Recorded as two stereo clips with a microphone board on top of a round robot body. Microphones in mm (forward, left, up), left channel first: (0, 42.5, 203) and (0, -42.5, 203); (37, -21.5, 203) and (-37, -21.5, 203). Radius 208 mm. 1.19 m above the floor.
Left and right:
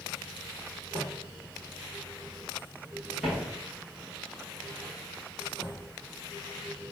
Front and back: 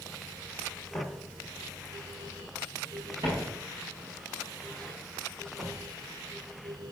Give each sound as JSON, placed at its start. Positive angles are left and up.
{"t": 0.9, "sound": "footsteps", "azimuth_deg": -80, "distance_m": 1.3}